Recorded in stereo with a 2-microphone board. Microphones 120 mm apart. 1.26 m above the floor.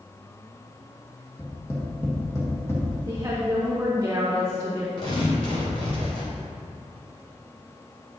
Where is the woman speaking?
25° right (ahead or behind), 1.2 m.